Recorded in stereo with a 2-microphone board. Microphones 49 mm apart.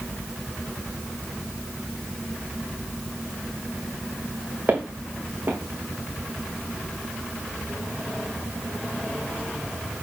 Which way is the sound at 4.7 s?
35° right (ahead or behind).